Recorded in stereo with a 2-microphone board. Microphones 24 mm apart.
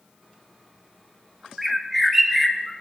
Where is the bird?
10° right (ahead or behind), 0.6 m.